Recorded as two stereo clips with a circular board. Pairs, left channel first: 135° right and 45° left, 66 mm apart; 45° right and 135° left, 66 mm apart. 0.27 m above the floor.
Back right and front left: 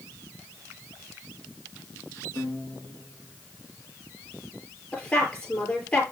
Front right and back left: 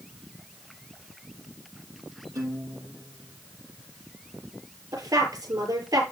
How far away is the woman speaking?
About 6 m.